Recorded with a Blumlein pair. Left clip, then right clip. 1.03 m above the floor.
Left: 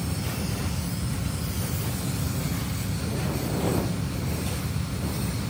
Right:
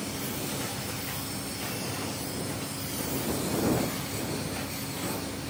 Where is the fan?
45° left.